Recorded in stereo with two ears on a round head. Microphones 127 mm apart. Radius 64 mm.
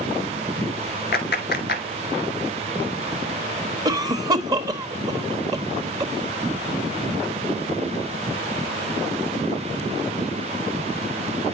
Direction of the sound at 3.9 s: 25° right (ahead or behind).